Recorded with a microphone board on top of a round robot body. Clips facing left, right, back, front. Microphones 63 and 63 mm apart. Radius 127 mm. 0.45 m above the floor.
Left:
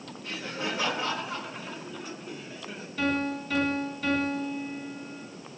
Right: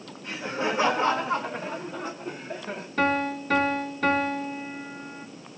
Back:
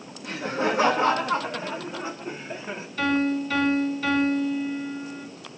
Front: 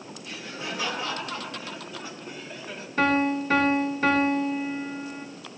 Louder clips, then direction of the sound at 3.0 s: Right 4 dB, front 1 dB; 50° right.